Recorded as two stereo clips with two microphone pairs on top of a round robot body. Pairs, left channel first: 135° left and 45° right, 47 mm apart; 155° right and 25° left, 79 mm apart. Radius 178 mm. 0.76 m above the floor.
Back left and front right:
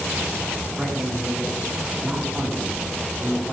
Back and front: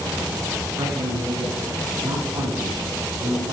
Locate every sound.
0.8 s a man speaking: 30° left, 6 m